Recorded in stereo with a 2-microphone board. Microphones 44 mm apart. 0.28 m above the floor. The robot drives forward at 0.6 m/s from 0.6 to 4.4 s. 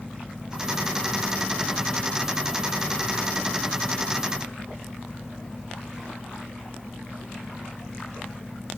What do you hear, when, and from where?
Only background noise.